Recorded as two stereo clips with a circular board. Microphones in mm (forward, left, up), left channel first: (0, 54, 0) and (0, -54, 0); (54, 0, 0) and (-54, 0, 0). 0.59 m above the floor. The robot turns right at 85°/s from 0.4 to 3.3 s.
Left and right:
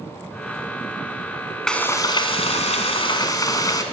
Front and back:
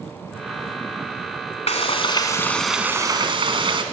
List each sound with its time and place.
1.7 s frying: 5° left, 1.2 m; by 3.8 s 145° left, 1.2 m